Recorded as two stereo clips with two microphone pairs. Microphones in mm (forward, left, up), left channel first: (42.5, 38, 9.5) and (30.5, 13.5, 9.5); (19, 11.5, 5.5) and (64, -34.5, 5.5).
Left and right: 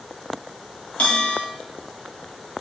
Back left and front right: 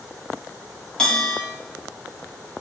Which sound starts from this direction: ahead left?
A bell, at 1.0 s.